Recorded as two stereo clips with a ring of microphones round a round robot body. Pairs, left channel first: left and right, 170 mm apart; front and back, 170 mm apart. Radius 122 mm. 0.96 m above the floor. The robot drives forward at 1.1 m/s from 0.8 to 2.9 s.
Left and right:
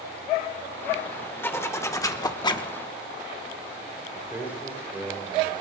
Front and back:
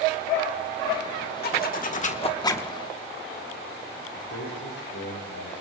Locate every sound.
1.4 s a zipper: 15° left, 1.7 m; by 2.7 s 80° left, 0.9 m
4.1 s a man speaking: 10° right, 3.5 m